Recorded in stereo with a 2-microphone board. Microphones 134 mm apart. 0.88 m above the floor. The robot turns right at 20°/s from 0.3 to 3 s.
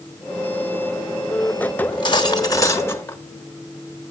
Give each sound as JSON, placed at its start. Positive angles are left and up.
{"t": 1.8, "sound": "cutlery clinking", "side_deg": 40, "distance_m": 0.9}